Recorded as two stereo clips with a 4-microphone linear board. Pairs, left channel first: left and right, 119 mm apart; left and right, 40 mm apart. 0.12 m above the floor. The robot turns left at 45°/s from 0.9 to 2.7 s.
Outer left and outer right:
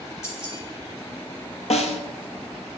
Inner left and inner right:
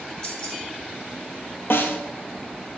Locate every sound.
0.2 s keys jangling: 25° left (ahead or behind), 1.5 m
1.7 s a snare drum: 70° left (ahead or behind), 0.8 m